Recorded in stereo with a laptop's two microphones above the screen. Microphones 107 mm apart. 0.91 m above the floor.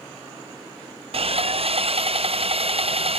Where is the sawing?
65° right (ahead or behind), 0.5 m.